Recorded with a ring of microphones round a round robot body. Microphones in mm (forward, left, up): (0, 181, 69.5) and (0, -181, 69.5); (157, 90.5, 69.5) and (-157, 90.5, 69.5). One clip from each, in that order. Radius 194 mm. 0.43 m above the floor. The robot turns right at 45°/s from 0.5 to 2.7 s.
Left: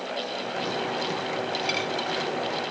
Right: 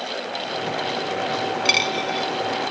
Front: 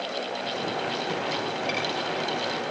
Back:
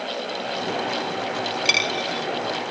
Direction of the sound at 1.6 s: 140° right.